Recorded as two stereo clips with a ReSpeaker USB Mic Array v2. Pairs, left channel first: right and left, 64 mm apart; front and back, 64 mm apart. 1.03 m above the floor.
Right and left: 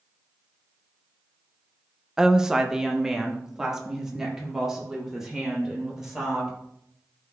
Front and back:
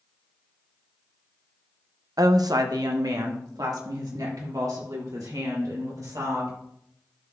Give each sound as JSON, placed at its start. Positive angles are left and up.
{"t": 2.2, "sound": "a woman speaking", "azimuth_deg": 170, "distance_m": 0.5}